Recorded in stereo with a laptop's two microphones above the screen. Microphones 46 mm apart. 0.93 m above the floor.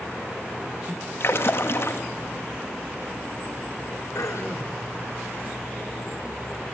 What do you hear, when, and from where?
1.2 s a splash: 55° left (ahead or behind), 1.8 m
4.2 s throat clearing: 80° left, 2.5 m